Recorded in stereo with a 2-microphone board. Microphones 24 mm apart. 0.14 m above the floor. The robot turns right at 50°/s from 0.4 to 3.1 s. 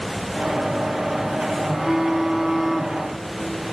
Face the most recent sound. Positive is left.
turn(degrees=25)